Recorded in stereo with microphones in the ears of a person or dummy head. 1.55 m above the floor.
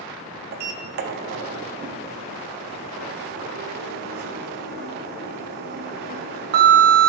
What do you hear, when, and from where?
0.5 s a sliding door: 50° right (ahead or behind), 0.6 m